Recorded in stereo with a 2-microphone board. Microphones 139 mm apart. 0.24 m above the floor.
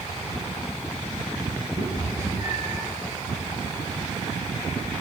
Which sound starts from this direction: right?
A cat meowing, at 1.8 s.